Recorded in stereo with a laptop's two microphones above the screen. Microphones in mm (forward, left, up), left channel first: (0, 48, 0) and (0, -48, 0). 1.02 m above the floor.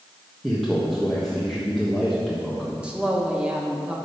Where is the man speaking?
Centre (ahead or behind), 1.4 m.